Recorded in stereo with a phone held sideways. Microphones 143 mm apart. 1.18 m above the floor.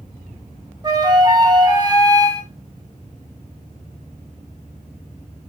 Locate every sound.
0.8 s a flute: 30° right (ahead or behind), 0.7 m